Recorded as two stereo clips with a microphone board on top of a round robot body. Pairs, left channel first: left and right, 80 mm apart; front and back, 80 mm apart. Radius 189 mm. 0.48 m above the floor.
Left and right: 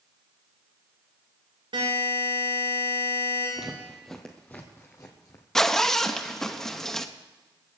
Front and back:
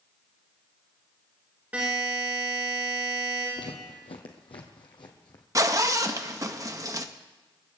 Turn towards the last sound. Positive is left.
turn(degrees=170)